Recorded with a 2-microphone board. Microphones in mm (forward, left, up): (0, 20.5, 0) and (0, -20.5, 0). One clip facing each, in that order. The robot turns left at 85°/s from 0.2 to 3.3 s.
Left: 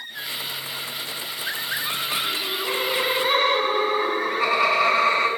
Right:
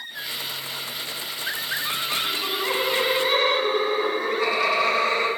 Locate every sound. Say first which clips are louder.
2.2 s laughter: right 1 dB; 105° right, 8 m; by 5.3 s 165° left, 8 m